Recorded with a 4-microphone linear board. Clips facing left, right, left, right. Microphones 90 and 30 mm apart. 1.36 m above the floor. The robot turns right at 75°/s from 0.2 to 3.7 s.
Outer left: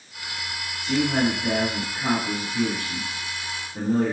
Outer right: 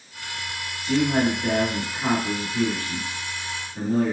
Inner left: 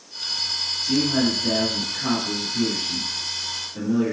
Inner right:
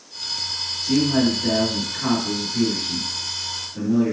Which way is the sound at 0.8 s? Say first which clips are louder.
Outer right 1 dB, inner right 3 dB; 170° right.